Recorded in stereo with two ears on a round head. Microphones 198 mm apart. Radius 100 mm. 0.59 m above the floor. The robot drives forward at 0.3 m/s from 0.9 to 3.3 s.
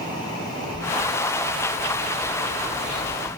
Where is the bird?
55° right (ahead or behind), 1.8 m; by 3.3 s 40° right (ahead or behind), 2 m.